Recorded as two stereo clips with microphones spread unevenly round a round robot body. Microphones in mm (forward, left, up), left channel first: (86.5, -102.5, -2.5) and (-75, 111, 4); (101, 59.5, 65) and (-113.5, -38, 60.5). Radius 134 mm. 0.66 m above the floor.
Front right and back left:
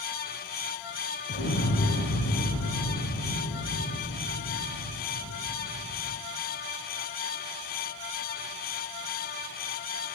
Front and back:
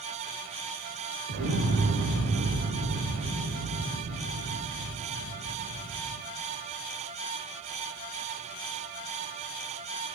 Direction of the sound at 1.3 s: 110° right.